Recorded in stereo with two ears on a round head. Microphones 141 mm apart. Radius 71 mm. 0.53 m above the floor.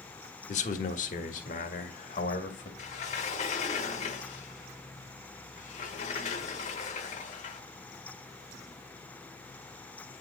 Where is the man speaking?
45° left (ahead or behind), 1.0 m; by 2.7 s 50° left (ahead or behind), 2.5 m.